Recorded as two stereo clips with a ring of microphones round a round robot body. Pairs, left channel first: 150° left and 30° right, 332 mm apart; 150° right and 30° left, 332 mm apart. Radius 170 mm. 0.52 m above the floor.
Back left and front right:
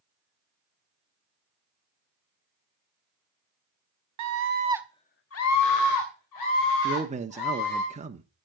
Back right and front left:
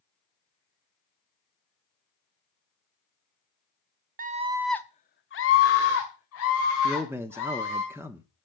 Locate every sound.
4.2 s a scream: 30° right, 1.2 m; by 7.8 s 165° left, 4.5 m
6.8 s a man speaking: 40° right, 0.9 m